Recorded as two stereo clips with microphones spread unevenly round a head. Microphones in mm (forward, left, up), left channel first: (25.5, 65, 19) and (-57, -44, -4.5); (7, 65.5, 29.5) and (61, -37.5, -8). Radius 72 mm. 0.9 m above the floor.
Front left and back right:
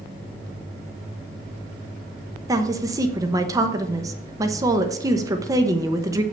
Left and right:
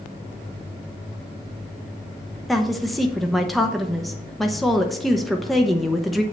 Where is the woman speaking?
120° right, 1.0 m.